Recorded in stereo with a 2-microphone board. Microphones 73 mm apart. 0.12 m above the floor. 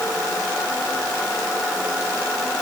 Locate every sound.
Only background noise.